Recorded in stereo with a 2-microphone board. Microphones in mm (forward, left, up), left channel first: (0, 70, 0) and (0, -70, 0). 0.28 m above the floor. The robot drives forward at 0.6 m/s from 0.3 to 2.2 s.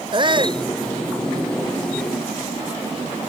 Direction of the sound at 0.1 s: 35° right (ahead or behind).